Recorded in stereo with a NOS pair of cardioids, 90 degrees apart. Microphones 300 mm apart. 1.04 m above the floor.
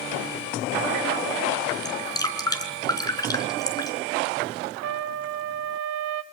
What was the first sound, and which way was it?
Dripping, 10° left.